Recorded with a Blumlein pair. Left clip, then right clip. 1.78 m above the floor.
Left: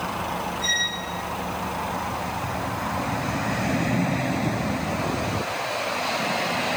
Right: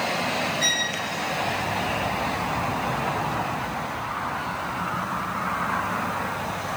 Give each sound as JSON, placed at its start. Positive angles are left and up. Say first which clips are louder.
{"t": 0.6, "sound": "a violin", "louder": "left 1 dB", "azimuth_deg": -30, "distance_m": 4.0}